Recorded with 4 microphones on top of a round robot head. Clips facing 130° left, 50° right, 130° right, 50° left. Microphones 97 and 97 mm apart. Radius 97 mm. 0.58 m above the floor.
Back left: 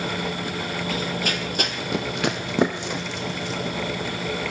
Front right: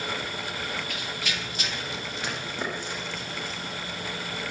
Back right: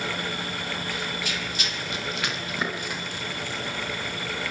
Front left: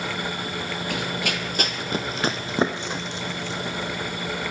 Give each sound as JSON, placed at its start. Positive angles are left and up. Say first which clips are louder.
{"t": 0.9, "sound": "running footsteps", "louder": "back left 8 dB, front left 4 dB", "azimuth_deg": 75, "distance_m": 1.4}